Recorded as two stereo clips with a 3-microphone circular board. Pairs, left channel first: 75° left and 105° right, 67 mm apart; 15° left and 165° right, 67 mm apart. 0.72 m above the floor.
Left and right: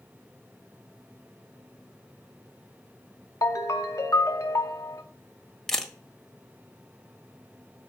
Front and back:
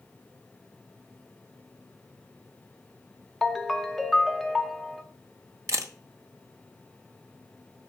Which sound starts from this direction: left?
A ringtone, at 3.4 s.